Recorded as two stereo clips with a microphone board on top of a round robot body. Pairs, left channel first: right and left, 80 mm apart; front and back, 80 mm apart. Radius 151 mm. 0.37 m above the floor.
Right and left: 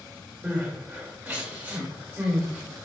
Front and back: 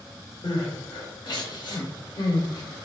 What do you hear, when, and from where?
0.4 s crying: 20° left, 1.1 m